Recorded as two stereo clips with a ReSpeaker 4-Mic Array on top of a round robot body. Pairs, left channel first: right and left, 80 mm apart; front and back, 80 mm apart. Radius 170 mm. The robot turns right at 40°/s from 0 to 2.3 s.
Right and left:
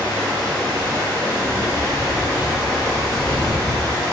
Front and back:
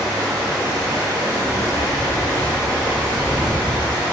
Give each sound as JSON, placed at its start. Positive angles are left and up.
{"t": 0.0, "sound": "running water", "azimuth_deg": 155, "distance_m": 1.1}